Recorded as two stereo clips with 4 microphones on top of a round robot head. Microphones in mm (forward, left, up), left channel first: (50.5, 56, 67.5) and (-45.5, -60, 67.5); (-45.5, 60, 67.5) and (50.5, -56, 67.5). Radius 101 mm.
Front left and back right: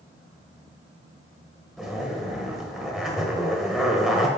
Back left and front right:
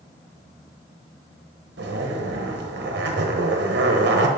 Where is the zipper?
40° right, 1.2 m.